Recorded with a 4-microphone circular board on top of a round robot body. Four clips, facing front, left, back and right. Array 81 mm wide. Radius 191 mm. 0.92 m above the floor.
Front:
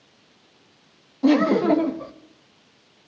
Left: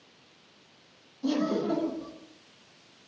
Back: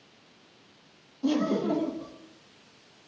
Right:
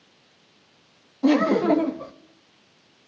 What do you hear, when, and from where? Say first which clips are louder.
1.2 s laughter: right 9 dB, front 9 dB; 50° right, 2.0 m